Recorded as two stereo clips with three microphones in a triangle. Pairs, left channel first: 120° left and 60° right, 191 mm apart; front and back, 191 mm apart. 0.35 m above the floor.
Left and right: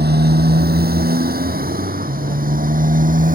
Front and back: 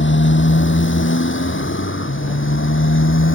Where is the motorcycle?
20° right; by 3.4 s 10° right.